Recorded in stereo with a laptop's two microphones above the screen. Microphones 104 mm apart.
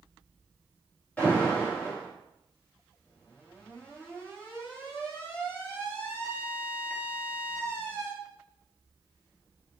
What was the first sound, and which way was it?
An alarm, 15° left (ahead or behind).